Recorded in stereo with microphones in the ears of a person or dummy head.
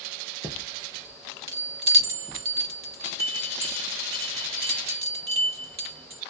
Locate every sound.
0.4 s a chime: 20° right (ahead or behind), 0.7 m